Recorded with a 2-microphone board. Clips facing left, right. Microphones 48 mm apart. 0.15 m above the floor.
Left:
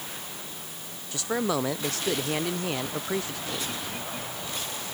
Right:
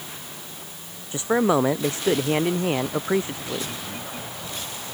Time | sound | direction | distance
1.1 | a man speaking | 25° right (ahead or behind) | ?